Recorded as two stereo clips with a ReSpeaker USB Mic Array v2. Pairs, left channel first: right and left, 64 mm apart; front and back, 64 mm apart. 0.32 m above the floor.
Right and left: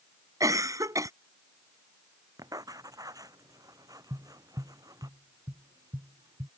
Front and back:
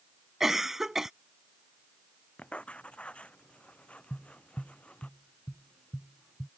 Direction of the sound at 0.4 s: 95° left.